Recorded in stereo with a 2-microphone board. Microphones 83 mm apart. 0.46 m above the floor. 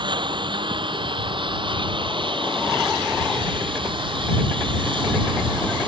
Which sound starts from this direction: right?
A lawn mower, at 0.0 s.